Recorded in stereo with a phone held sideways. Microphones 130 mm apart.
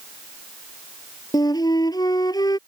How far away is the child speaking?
No child speaking in this recording.